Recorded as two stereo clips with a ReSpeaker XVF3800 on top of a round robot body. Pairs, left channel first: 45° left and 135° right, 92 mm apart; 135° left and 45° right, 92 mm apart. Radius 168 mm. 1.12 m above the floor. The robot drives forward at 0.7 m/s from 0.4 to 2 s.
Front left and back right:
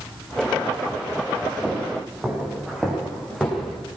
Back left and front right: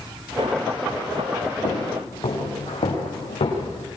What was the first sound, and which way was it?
Footsteps, 155° left.